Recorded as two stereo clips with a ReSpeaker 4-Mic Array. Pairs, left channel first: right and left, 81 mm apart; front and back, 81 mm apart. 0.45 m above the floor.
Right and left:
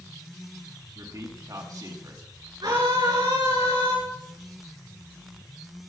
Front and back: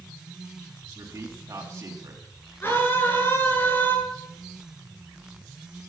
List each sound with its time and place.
0.9 s a man speaking: 125° left, 4 m
2.6 s a scream: 65° left, 8 m